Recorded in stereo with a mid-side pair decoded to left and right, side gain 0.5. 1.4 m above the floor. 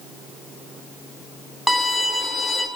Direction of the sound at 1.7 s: 5° left.